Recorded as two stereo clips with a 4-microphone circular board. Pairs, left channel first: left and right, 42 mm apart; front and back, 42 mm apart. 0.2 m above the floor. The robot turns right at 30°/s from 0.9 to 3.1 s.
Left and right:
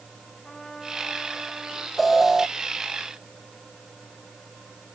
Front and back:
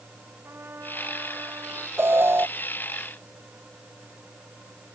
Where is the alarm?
Straight behind; by 2.5 s 165° right.